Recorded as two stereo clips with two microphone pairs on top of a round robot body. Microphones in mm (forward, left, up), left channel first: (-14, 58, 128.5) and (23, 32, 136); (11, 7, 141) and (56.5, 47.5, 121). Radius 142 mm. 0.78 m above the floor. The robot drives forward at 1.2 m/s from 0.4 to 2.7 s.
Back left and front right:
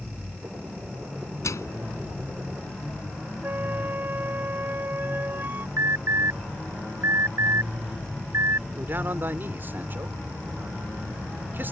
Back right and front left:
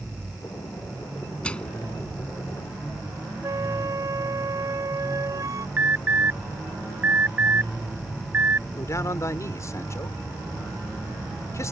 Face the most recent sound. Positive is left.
turn(degrees=-90)